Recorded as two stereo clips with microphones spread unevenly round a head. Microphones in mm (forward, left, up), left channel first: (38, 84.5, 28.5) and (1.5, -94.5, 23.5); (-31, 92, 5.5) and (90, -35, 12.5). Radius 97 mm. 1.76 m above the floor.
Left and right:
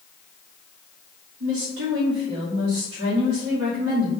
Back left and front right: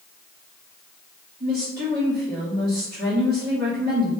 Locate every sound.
1.4 s a woman speaking: 95° right, 2 m